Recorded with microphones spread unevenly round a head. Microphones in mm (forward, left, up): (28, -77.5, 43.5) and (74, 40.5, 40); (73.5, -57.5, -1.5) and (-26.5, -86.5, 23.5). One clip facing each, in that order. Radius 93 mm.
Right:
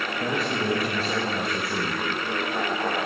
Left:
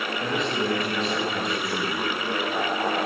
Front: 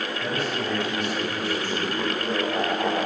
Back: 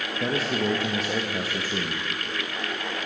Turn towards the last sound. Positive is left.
turn(degrees=160)